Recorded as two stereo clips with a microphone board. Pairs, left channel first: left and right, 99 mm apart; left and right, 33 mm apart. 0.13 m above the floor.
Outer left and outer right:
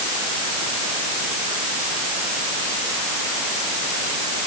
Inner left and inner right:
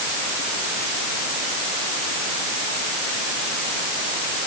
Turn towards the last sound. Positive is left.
No sound to turn to.